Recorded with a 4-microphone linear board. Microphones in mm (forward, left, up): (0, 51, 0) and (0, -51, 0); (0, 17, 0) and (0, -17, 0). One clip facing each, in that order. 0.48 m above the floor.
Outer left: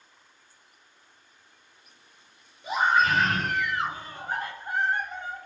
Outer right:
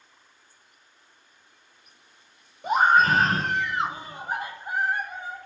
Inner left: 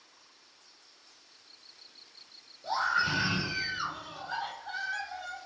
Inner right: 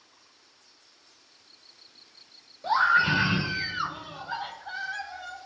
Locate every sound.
2.6 s a scream: 55° right (ahead or behind), 1.2 m; by 5.4 s 5° right (ahead or behind), 2.5 m